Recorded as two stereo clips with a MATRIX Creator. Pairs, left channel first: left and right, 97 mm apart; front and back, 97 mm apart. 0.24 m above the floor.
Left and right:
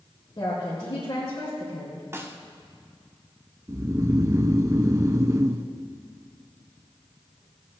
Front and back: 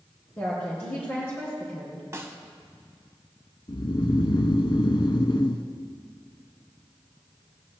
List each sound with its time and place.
0.4 s a woman speaking: 60° left, 2.5 m
2.1 s a snare drum: 140° right, 1.0 m
3.7 s snoring: 30° right, 0.5 m